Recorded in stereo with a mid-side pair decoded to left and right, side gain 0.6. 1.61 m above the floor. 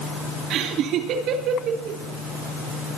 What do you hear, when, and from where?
0.5 s laughter: 65° right, 2.5 m